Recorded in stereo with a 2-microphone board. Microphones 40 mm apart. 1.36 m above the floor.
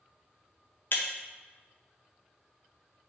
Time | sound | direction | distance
0.9 | breaking glass | 50° left (ahead or behind) | 0.7 m